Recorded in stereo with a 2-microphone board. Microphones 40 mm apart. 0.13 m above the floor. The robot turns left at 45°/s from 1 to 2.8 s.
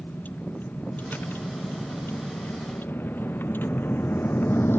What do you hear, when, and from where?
0.0 s a vehicle: 45° left (ahead or behind); by 4.8 s 70° left (ahead or behind)